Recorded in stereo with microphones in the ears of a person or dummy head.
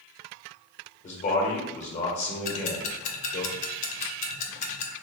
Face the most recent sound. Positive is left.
turn(degrees=40)  # may be behind; listen again after turning